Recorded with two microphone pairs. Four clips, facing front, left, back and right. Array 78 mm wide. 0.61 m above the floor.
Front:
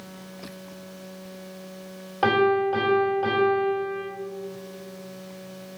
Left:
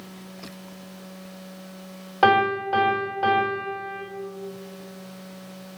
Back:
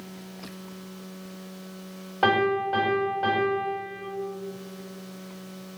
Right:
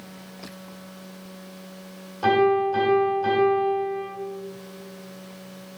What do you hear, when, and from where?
2.2 s a piano: 75° left, 3 m